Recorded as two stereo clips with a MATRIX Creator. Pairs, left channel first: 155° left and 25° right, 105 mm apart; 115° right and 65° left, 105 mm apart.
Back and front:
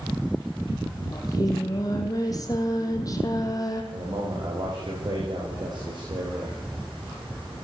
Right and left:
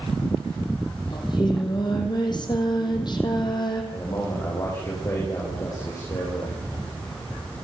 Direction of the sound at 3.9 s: 60° right.